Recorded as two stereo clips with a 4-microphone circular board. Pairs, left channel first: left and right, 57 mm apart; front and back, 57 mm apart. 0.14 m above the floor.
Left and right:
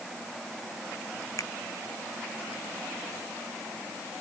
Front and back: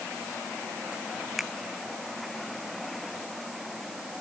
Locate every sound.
1.4 s a finger snap: 95° left